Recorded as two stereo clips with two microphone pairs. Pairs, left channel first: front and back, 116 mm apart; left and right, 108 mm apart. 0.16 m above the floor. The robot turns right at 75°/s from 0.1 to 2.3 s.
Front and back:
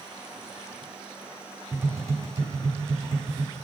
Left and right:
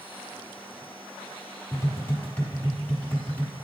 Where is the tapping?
120° left, 1.1 m; by 3.5 s 165° left, 1.1 m.